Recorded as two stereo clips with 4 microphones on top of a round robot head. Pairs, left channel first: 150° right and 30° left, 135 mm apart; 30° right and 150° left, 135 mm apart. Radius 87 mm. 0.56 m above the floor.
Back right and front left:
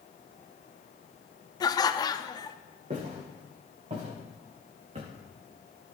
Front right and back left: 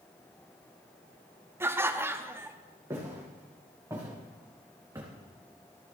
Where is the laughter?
160° right, 0.7 m.